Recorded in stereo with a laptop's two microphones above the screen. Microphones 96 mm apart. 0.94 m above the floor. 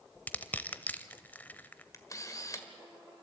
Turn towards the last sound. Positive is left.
turn(degrees=35)  # may be behind; listen again after turning